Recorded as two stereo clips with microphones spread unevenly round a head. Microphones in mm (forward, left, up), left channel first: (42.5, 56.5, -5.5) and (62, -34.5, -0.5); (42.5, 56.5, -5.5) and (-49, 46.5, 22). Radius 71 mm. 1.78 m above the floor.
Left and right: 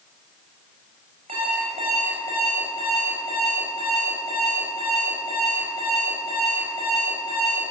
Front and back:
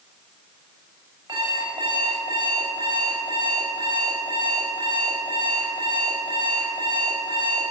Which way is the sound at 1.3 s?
120° right.